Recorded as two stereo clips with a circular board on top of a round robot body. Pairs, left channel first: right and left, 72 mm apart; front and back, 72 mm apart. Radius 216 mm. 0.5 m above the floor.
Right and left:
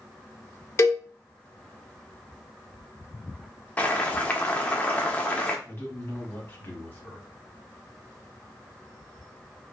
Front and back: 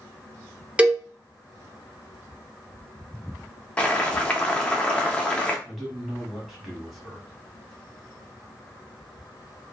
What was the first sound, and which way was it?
A cowbell, 115° right.